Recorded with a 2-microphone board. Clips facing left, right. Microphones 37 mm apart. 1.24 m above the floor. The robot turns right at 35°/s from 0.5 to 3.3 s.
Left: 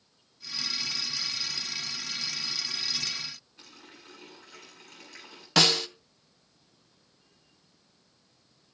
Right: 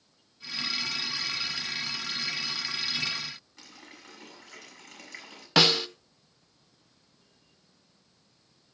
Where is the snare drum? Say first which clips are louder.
Right 1 dB; 15° right (ahead or behind), 1.0 m.